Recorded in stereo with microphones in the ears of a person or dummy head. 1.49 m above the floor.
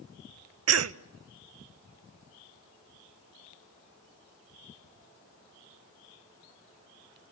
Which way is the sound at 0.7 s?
70° right (ahead or behind).